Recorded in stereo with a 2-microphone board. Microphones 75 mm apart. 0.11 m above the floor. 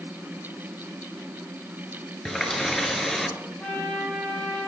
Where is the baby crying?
No baby crying in this recording.